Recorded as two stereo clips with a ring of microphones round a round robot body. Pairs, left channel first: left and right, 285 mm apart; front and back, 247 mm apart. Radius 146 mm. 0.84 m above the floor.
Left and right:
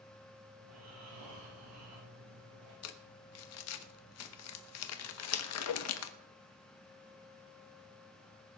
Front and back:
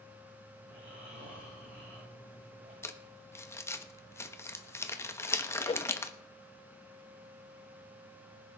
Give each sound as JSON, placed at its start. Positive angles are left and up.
{"t": 0.6, "sound": "snoring", "azimuth_deg": -95, "distance_m": 8.0}
{"t": 2.8, "sound": "crumpling", "azimuth_deg": 80, "distance_m": 1.2}
{"t": 5.7, "sound": "a whoosh", "azimuth_deg": 70, "distance_m": 0.7}